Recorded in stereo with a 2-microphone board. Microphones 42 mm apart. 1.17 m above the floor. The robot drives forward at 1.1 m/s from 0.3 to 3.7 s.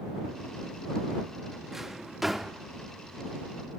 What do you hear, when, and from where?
1.7 s a drawer: 5° right (ahead or behind), 1.0 m